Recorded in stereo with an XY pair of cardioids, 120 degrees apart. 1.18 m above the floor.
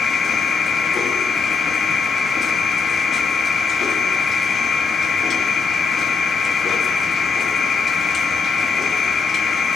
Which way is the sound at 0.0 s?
40° left.